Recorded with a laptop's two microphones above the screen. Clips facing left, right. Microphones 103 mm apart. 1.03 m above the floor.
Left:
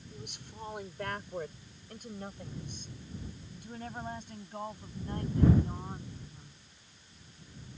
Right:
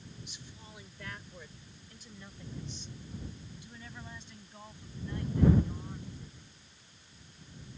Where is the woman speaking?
65° left (ahead or behind); by 6.6 s 45° left (ahead or behind).